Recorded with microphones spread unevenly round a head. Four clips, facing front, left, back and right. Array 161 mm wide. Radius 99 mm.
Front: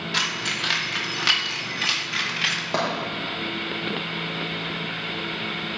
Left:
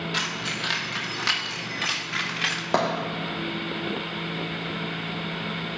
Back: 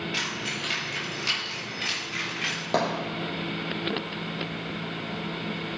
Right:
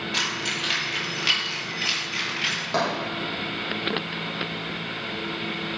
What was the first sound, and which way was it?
Keys jangling, 10° left.